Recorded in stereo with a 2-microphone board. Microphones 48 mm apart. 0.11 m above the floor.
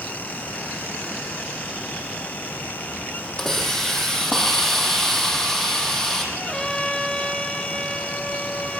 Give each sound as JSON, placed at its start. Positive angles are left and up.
{"t": 3.4, "sound": "a hiss", "side_deg": 10, "distance_m": 4.5}
{"t": 6.3, "sound": "a trumpet", "side_deg": 15, "distance_m": 2.5}